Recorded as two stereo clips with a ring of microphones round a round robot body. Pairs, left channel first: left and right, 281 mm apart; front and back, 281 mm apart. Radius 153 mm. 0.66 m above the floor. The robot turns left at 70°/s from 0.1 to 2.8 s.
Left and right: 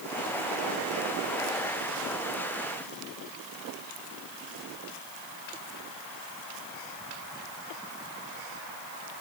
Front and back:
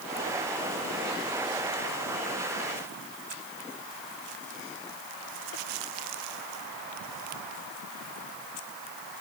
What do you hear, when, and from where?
Only background noise.